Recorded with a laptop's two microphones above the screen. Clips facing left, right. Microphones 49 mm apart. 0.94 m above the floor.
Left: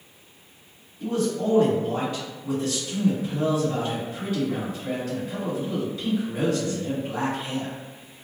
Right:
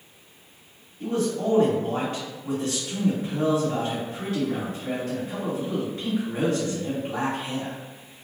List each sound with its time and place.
1.0 s a man speaking: 50° right (ahead or behind), 1.8 m